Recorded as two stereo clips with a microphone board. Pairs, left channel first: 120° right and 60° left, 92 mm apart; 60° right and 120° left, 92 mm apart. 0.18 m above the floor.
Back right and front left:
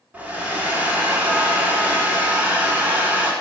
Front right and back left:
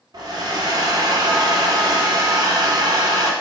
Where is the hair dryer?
130° left, 0.9 m.